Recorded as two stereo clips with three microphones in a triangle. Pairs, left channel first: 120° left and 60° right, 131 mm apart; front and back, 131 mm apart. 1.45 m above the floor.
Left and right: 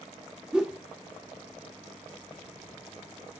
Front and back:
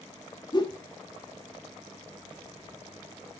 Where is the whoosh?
20° left, 1.0 m.